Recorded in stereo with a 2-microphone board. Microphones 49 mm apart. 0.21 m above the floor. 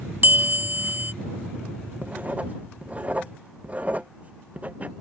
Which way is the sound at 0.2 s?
45° right (ahead or behind).